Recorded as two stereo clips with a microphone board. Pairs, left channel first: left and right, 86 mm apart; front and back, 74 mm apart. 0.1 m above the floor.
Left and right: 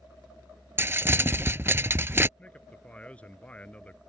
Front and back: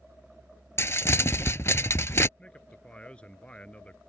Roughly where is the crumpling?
Ahead right.